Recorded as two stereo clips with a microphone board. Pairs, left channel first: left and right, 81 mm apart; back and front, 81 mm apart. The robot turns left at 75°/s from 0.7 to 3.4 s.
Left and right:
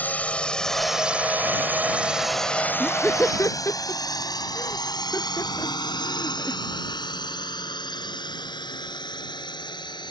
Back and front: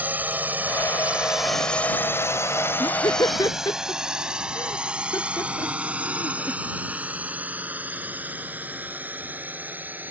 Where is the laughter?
175° right; by 6.6 s 140° left.